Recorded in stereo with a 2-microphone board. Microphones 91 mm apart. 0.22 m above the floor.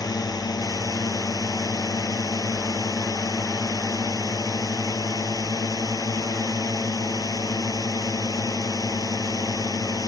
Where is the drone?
45° left (ahead or behind).